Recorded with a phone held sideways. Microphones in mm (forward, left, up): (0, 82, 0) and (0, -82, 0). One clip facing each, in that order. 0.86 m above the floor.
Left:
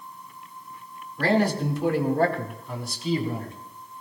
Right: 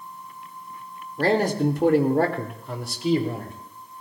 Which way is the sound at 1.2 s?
35° right (ahead or behind).